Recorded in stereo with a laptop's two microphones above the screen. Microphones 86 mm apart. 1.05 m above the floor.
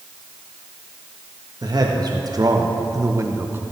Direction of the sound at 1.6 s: 45° right (ahead or behind).